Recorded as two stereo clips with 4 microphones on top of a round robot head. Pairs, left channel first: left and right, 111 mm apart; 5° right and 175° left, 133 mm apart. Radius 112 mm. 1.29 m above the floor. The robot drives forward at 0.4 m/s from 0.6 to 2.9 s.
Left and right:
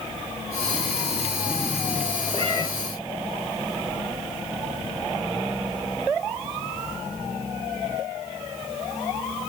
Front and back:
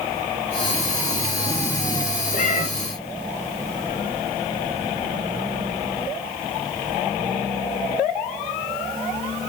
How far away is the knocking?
No knocking in this recording.